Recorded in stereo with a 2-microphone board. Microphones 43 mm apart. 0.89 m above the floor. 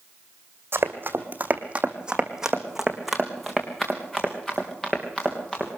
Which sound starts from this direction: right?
Running footsteps, at 0.7 s.